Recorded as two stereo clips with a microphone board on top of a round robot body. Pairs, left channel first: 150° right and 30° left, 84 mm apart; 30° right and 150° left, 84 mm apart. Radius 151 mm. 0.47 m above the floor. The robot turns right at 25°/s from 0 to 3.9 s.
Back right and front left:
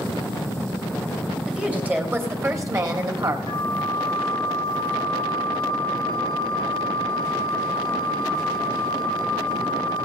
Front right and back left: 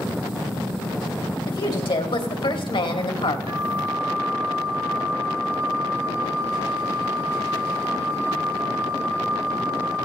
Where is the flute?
175° right, 2.5 m; by 10.1 s 165° right, 2.5 m.